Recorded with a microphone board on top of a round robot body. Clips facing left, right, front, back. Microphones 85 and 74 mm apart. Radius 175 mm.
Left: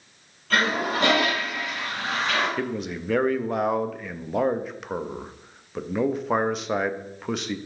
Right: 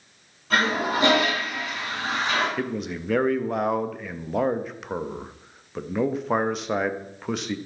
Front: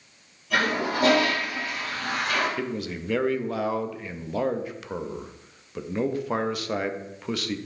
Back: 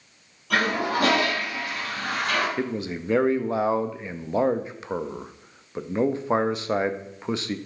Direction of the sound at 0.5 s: 165° right.